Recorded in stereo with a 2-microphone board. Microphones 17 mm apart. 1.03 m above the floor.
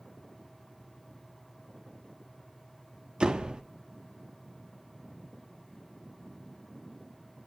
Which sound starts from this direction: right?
A door slam, at 3.2 s.